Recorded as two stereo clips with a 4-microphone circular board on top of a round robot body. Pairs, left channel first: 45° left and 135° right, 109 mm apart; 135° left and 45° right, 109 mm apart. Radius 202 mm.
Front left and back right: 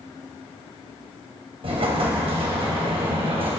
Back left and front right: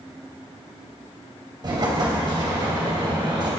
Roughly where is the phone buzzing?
No phone buzzing in this recording.